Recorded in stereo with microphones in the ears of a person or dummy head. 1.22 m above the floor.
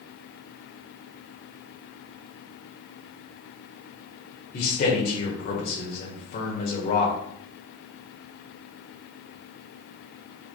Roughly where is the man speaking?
Left.